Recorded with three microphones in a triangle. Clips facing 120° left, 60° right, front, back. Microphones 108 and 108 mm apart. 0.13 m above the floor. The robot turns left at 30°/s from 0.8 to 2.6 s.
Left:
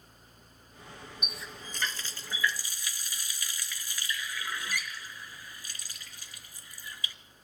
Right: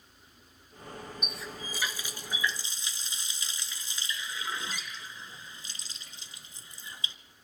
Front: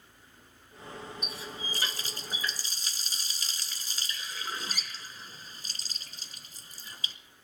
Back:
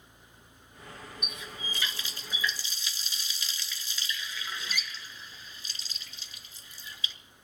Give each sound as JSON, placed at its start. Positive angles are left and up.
{"t": 1.2, "sound": "a running tap", "azimuth_deg": 35, "distance_m": 1.3}